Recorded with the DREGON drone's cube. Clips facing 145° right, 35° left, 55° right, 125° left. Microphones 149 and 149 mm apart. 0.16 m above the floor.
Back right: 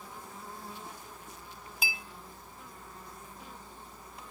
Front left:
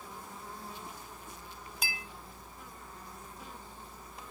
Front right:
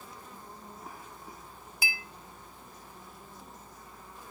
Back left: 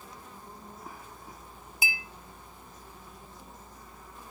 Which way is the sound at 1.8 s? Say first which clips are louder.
Back right 2 dB, back left 2 dB; 135° left.